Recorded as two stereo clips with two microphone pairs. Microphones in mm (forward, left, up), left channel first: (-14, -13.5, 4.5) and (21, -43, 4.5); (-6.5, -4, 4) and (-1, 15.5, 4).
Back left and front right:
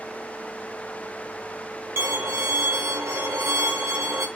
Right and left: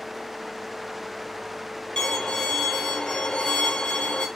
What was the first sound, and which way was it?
A violin, 60° right.